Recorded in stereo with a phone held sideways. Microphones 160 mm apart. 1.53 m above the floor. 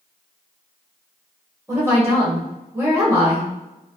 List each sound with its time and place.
1.7 s a woman speaking: 20° right (ahead or behind), 1.5 m